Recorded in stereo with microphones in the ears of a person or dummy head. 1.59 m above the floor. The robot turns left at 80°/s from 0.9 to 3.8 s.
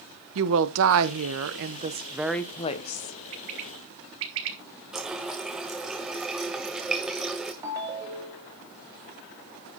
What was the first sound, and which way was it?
A woman speaking, 65° right.